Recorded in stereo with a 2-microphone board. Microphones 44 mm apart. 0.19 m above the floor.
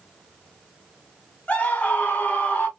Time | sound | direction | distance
1.5 | a scream | 35° left (ahead or behind) | 1.5 m